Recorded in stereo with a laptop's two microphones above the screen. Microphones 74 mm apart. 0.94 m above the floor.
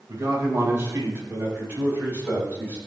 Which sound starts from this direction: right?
A man speaking, at 0.1 s.